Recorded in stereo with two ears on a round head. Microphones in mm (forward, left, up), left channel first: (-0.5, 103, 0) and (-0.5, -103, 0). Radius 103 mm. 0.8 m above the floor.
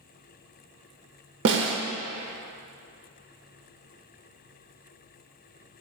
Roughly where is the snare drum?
Right.